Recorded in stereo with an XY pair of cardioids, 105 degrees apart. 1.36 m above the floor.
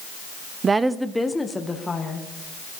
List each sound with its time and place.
0.6 s a woman speaking: 45° right, 0.5 m; by 2.3 s 25° left, 2.5 m